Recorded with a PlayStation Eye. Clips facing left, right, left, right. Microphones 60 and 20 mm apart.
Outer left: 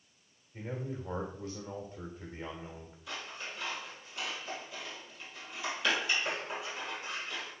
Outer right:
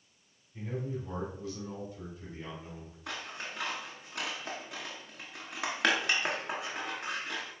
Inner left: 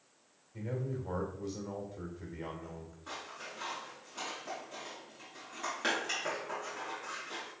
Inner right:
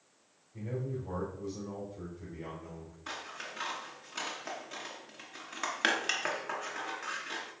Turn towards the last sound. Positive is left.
turn(degrees=-70)  # may be behind; listen again after turning